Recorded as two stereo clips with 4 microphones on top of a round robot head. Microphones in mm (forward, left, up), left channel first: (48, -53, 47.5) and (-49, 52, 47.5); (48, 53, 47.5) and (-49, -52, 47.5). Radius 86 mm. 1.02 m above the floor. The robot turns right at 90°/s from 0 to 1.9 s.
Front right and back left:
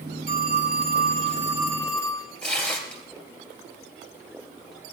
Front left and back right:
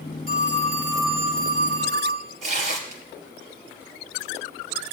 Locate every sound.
0.3 s a phone ringing: 95° left, 2.5 m; by 2.3 s 120° right, 2.5 m
2.4 s tearing paper: 125° right, 2.5 m